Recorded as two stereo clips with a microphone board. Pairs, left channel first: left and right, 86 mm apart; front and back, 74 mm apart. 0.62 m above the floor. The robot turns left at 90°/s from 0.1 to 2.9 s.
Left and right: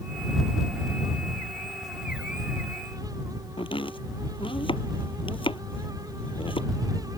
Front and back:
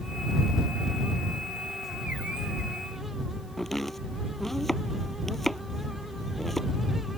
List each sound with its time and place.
3.6 s chopping: 85° left